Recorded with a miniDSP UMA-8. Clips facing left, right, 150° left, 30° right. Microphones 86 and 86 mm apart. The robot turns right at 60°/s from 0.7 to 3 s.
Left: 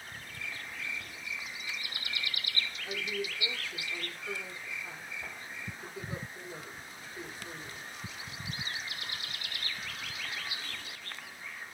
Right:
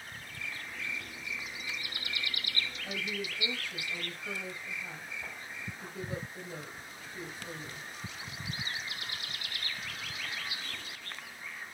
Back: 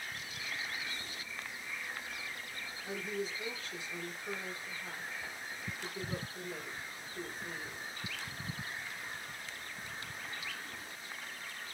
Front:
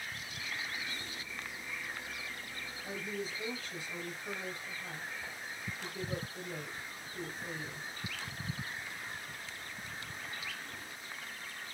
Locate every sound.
2.8 s a woman speaking: 85° right, 2.5 m; by 7.9 s 75° right, 2.5 m